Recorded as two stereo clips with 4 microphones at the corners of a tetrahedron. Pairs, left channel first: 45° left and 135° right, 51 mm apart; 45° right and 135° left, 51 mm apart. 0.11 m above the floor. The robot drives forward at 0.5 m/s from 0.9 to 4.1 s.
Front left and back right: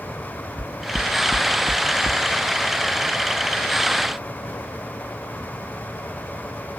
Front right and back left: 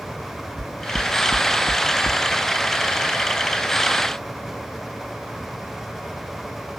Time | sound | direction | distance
0.6 | knocking | 140° left | ?